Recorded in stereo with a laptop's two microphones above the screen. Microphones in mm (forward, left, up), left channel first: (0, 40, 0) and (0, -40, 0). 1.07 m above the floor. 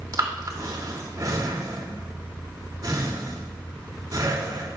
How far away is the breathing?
About 2.5 m.